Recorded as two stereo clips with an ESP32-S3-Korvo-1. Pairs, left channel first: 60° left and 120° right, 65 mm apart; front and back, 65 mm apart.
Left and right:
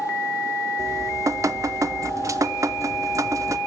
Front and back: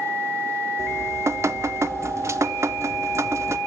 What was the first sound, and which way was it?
Dripping, 145° right.